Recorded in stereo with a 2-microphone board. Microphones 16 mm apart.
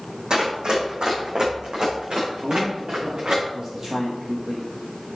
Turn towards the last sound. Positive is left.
turn(degrees=-20)  # may be behind; listen again after turning